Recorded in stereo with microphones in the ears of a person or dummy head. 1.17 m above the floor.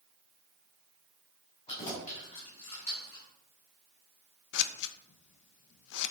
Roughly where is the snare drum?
No snare drum in this recording.